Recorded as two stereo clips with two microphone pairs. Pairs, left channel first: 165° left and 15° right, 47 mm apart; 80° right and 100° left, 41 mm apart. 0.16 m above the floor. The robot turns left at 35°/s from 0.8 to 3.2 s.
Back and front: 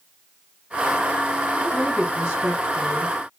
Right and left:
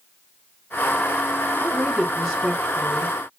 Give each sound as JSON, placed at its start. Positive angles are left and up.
{"t": 1.6, "sound": "a woman speaking", "azimuth_deg": 70, "distance_m": 1.3}